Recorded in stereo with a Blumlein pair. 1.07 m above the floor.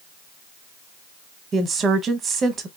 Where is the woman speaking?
20° right, 0.7 m.